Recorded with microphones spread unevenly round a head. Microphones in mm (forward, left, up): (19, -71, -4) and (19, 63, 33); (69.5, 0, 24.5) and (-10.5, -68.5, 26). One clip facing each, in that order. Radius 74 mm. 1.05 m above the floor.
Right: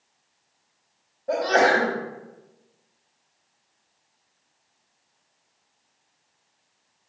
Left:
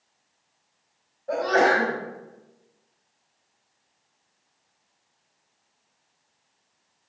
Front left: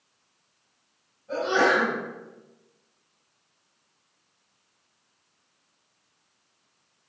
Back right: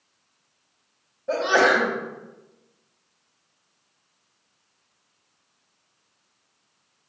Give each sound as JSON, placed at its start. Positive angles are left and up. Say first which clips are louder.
{"t": 1.3, "sound": "a sneeze", "louder": "right 1 dB, back right 3 dB", "azimuth_deg": -155, "distance_m": 1.9}